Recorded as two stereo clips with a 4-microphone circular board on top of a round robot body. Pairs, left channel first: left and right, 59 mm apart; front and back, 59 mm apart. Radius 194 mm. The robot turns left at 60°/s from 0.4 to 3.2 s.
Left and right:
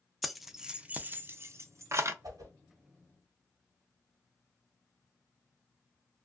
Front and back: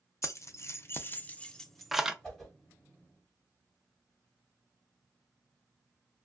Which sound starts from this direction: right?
A whoosh, at 2.2 s.